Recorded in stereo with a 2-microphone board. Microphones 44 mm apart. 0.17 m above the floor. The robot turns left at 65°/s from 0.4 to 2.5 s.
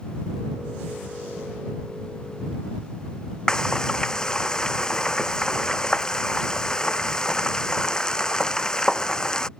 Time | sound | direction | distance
3.5 | frying | 20° left (ahead or behind) | ?